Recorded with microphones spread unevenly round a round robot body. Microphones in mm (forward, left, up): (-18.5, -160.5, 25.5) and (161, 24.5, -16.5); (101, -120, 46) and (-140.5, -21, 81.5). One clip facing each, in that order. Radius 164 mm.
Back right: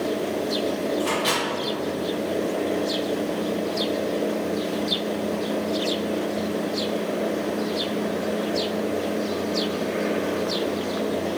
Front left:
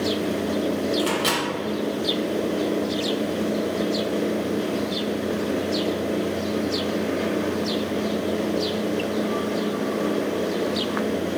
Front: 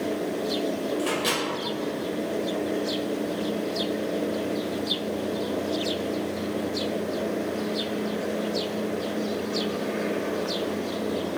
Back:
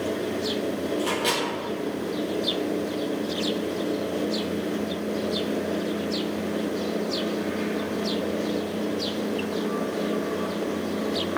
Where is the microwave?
55° left, 0.8 m.